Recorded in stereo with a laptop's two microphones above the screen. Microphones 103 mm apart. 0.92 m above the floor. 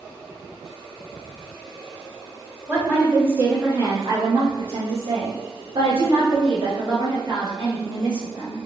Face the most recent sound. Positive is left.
turn(degrees=-35)  # may be behind; listen again after turning